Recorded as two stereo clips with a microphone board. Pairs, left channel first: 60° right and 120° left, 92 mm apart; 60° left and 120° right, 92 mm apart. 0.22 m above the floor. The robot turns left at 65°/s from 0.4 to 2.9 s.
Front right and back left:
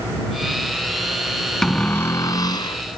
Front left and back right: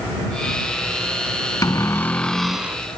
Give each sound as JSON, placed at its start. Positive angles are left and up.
{"t": 1.6, "sound": "a cupboard door", "azimuth_deg": 25}